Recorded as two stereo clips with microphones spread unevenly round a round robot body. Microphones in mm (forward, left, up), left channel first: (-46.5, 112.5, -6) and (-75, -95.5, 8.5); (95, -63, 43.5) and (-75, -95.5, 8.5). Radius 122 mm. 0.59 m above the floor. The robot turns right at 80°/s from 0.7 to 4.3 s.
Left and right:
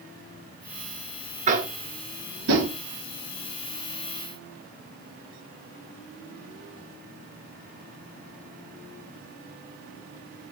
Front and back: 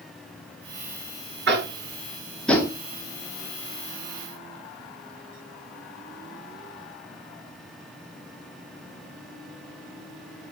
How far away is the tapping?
About 1.8 m.